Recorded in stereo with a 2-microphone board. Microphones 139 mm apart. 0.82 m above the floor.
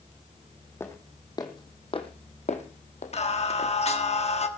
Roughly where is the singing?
Left.